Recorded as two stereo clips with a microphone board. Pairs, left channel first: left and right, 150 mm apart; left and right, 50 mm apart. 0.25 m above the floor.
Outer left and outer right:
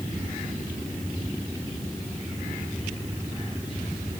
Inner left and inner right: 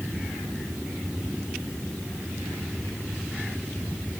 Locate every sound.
Only background noise.